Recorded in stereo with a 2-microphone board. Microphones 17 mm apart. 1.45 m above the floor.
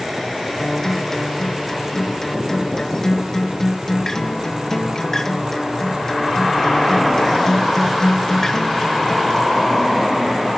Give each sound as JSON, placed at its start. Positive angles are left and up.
{"t": 0.6, "sound": "a guitar", "side_deg": 25, "distance_m": 2.0}